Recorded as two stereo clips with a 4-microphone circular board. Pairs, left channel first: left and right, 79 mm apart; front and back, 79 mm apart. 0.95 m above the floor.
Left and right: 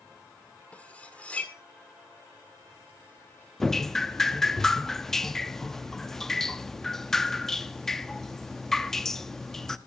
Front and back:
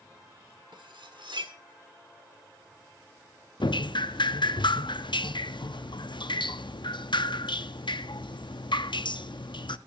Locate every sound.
0.7 s cutlery clinking: 165° left, 1.7 m
3.6 s dripping: 5° left, 0.6 m